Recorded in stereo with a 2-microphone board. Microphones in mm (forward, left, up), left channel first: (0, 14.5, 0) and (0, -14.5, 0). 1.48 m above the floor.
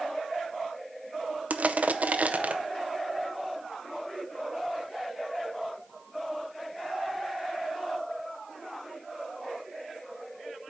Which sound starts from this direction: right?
Crushing, at 1.5 s.